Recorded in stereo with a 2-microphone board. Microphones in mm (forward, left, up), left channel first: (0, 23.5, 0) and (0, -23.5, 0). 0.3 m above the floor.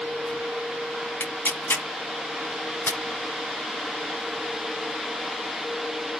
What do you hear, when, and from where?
1.2 s tearing paper: 50° left (ahead or behind), 1.2 m